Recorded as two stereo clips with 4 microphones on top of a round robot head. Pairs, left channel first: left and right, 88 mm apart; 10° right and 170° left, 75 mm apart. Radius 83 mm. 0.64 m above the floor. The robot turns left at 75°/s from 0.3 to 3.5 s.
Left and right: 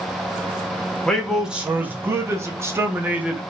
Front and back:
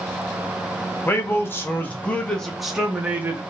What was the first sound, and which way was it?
A man speaking, 15° left.